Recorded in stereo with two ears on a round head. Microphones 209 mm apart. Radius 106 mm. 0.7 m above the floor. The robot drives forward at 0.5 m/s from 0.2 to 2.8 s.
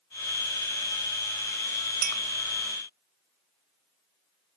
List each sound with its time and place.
2.0 s a clink: 40° right (ahead or behind), 1.3 m